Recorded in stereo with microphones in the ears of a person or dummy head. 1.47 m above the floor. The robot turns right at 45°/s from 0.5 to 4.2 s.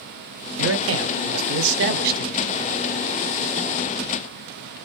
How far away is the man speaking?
About 0.7 m.